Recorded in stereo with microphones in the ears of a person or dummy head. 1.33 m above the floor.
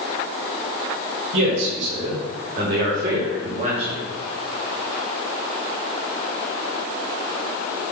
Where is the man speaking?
65° right (ahead or behind), 5.5 m; by 4.0 s 30° right (ahead or behind), 2 m.